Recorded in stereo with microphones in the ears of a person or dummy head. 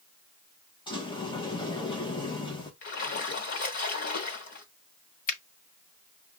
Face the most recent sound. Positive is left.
turn(degrees=45)  # may be behind; listen again after turning